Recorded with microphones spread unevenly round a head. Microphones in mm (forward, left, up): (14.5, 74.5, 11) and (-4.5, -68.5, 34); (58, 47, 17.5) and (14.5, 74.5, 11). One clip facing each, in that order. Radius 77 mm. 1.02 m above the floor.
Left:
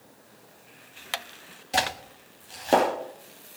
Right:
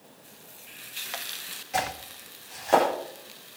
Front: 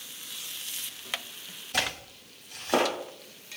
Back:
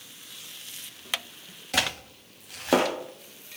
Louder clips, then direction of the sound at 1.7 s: Left 1 dB, back 3 dB; 140° left.